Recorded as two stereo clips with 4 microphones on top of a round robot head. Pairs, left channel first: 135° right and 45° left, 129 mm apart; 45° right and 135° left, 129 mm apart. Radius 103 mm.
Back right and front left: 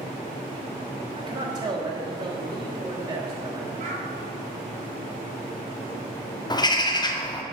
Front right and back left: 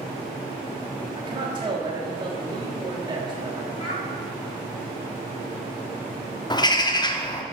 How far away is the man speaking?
About 1.6 m.